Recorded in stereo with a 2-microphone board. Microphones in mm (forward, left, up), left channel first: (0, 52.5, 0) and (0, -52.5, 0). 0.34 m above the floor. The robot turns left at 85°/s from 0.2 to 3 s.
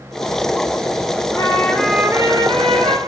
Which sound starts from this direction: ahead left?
A trumpet, at 1.4 s.